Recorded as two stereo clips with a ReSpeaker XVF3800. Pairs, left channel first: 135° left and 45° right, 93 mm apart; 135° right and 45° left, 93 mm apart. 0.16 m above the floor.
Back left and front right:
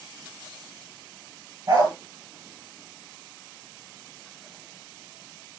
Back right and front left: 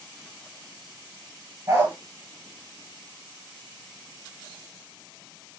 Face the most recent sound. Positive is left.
turn(degrees=-5)